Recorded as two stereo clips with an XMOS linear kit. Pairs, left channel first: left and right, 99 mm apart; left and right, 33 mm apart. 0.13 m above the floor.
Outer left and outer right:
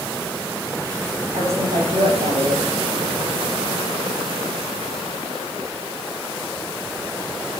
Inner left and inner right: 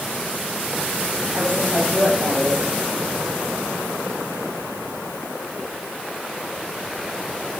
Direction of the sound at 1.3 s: 75° right (ahead or behind).